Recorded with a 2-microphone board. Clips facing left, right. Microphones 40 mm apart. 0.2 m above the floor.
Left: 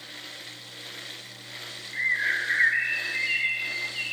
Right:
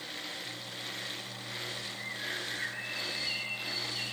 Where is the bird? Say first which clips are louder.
Left 17 dB; 75° left (ahead or behind), 0.8 m.